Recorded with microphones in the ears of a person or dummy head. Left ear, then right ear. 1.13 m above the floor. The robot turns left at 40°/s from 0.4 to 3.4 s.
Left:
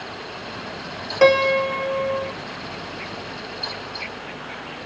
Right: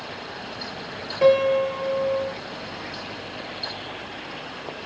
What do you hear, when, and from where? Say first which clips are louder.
1.2 s a piano: left 2 dB; 135° left, 1.3 m; by 2.3 s 90° left, 1.3 m